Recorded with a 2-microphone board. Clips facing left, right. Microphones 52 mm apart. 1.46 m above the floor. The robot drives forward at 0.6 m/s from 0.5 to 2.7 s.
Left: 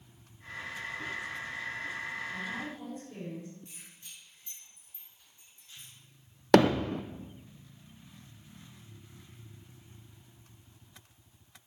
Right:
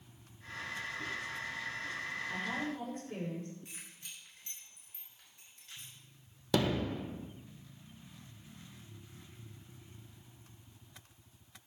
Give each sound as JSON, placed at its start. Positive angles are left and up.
{"t": 2.3, "sound": "a woman speaking", "side_deg": -55, "distance_m": 7.0}
{"t": 3.6, "sound": "keys jangling", "side_deg": -80, "distance_m": 4.5}
{"t": 6.5, "sound": "hammering", "side_deg": 55, "distance_m": 0.6}